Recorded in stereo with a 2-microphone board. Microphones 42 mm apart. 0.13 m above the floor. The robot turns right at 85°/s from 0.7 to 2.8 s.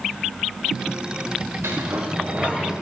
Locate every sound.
1.6 s a sliding door: 90° right, 4 m; by 2.7 s straight ahead, 4 m